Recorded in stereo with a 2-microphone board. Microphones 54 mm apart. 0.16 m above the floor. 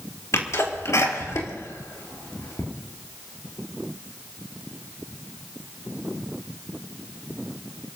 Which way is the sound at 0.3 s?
60° left (ahead or behind).